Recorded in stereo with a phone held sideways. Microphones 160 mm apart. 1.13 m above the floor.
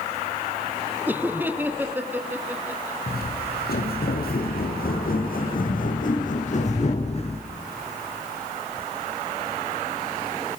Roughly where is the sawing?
No sawing in this recording.